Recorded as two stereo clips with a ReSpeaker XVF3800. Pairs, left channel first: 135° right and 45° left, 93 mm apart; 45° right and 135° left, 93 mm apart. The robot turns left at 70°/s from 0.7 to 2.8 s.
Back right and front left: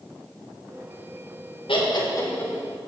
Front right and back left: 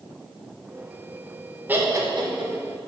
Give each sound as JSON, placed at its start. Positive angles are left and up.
{"t": 1.7, "sound": "laughter", "azimuth_deg": -155, "distance_m": 1.7}